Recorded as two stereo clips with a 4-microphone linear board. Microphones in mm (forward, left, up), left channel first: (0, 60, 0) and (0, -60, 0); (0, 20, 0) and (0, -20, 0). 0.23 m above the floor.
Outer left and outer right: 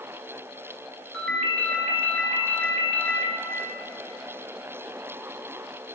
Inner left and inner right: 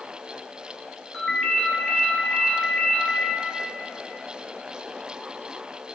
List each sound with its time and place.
1.1 s a ringtone: 10° left (ahead or behind), 2.5 m